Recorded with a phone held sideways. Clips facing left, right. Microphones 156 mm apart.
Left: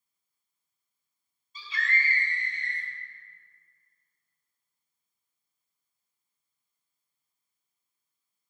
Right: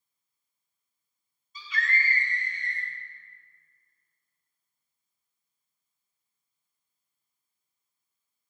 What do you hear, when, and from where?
1.6 s a scream: 30° left (ahead or behind), 4 m; by 2.9 s 25° left (ahead or behind), 3 m